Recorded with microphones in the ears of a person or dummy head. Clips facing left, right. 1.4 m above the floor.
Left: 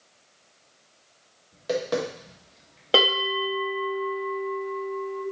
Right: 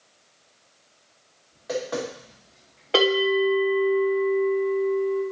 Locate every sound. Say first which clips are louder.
1.5 s tapping: left 2 dB; 40° left (ahead or behind), 1.3 m
2.9 s a bell: right 5 dB; 45° left (ahead or behind), 2.0 m